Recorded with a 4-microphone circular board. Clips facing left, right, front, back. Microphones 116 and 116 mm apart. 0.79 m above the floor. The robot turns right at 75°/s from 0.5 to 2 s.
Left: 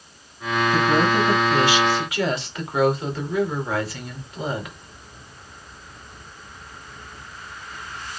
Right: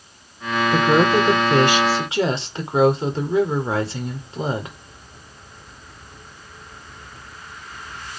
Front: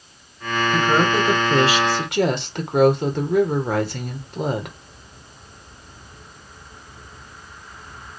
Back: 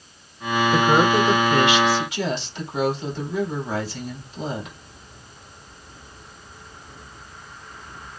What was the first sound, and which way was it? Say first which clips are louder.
A woman speaking: right 4 dB, back 1 dB; 125° right.